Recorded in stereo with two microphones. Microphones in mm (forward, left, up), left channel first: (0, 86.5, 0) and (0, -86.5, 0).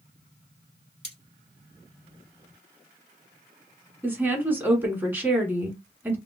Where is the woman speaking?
10° right (ahead or behind), 1.2 m.